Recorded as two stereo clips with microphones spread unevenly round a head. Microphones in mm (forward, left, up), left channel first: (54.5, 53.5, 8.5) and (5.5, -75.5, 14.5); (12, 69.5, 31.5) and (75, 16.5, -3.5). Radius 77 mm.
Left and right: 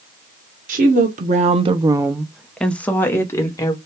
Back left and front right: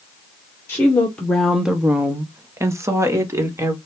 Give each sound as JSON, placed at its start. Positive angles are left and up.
{"t": 0.7, "sound": "a woman speaking", "azimuth_deg": -135, "distance_m": 1.0}